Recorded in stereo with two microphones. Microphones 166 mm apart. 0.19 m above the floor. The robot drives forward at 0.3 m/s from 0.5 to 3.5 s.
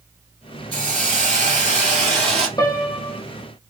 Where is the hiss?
60° right (ahead or behind), 1.1 m; by 2.5 s 40° right (ahead or behind), 1.4 m.